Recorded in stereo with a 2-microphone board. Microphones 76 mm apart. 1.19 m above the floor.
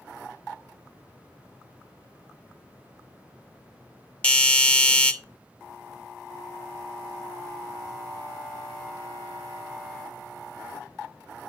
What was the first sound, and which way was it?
A doorbell, 15° left (ahead or behind).